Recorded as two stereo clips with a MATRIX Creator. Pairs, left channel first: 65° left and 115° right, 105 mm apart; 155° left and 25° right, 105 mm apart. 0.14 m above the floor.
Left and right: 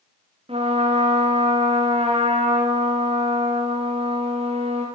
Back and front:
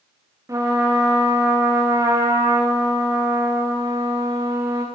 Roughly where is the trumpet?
Right.